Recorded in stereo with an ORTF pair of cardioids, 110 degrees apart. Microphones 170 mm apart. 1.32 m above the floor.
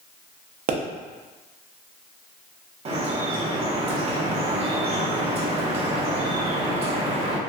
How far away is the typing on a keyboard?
I don't hear typing on a keyboard.